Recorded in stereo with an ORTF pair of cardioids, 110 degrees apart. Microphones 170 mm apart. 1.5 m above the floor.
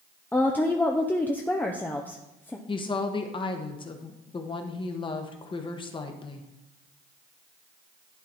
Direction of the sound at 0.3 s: 10° left.